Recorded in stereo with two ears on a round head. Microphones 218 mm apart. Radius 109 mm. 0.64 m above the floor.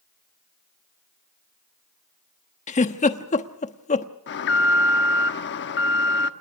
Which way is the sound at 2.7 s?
30° left (ahead or behind).